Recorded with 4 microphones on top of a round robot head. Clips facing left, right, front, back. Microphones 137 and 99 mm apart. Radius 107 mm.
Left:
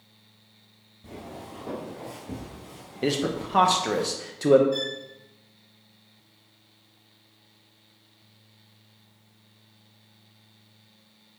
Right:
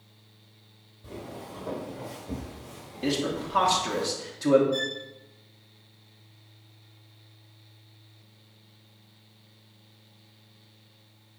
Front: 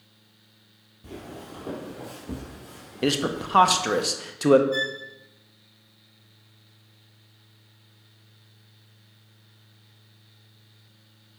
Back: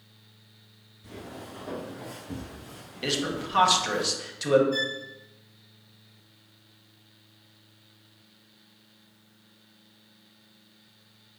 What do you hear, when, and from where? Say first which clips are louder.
1.0 s footsteps: even, front 2 dB; 10° left, 1.9 m; by 4.0 s straight ahead, 3.5 m
3.0 s a man speaking: left 2 dB, front 5 dB; 40° left, 0.8 m
4.7 s a violin: even, front 2 dB; 30° left, 3 m